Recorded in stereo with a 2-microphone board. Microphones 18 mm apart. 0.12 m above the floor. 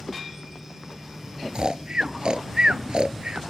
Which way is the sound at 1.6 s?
55° right (ahead or behind).